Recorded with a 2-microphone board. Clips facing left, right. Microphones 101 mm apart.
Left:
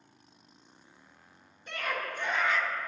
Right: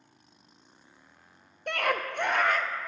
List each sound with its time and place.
1.7 s a scream: 70° right (ahead or behind), 0.9 m; by 2.7 s 50° right (ahead or behind), 0.9 m